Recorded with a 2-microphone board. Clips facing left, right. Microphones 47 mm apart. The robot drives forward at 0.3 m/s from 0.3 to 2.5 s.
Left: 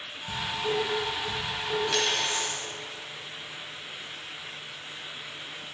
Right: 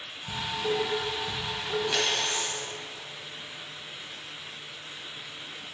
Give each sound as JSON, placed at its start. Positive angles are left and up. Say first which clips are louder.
{"t": 0.3, "sound": "dishes clattering", "louder": "even", "side_deg": -20, "distance_m": 0.6}
{"t": 1.9, "sound": "a dropped coin", "louder": "left 1 dB", "side_deg": -10, "distance_m": 0.8}